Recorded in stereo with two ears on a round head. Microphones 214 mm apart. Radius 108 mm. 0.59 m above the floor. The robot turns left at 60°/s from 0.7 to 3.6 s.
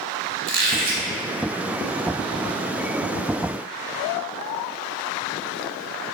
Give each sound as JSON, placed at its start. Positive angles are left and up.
{"t": 0.5, "sound": "a squeak", "side_deg": -50, "distance_m": 0.9}